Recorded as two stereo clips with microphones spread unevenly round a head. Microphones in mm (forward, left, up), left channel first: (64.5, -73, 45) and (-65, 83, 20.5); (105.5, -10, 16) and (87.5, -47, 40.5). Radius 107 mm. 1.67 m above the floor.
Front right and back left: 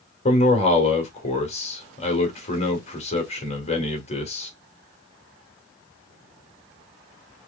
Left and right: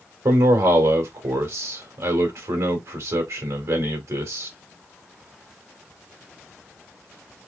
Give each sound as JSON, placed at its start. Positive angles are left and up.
{"t": 0.2, "sound": "a man speaking", "azimuth_deg": -110, "distance_m": 1.8}